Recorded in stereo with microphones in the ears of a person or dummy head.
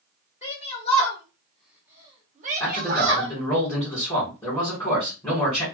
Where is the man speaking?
20° left (ahead or behind), 1.5 m.